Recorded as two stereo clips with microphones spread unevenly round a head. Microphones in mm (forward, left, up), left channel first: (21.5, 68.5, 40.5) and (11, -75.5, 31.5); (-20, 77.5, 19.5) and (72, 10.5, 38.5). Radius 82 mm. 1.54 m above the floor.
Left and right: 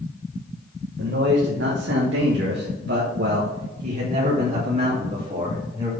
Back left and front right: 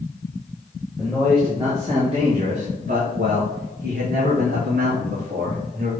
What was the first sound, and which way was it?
A man speaking, 125° right.